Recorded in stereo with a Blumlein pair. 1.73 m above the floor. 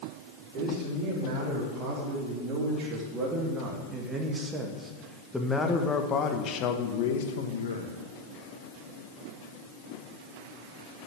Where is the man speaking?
40° right, 4 m; by 7.9 s 65° left, 1.7 m.